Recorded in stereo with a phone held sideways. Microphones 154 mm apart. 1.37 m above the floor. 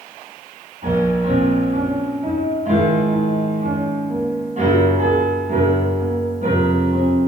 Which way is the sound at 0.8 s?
50° right (ahead or behind).